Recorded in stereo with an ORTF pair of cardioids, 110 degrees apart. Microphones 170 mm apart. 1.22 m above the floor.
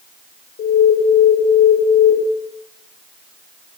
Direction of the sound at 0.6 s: 65° left.